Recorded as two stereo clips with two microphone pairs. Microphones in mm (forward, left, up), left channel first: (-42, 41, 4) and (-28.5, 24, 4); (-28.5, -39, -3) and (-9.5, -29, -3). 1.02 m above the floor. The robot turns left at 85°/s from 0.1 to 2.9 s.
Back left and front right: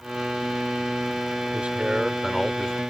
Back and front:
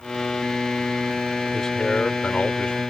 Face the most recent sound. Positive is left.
turn(degrees=160)